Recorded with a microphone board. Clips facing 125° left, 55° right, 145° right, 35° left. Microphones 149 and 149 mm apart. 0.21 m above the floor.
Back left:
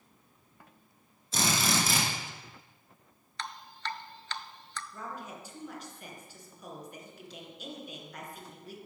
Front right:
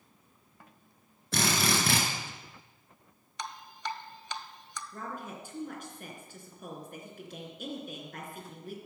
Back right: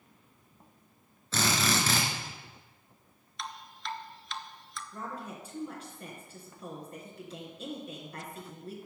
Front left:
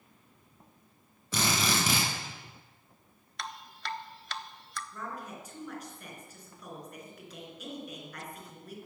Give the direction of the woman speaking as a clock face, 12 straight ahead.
3 o'clock.